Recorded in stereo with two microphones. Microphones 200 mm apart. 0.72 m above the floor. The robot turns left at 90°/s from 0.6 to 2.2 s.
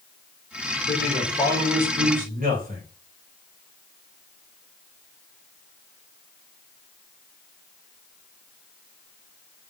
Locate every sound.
0.9 s a man speaking: 75° left, 3.5 m; by 2.8 s 45° right, 3.5 m